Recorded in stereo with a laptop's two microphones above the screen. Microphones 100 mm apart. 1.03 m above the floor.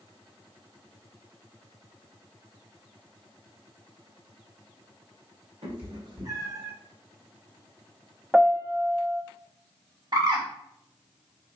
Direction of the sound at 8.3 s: 10° right (ahead or behind).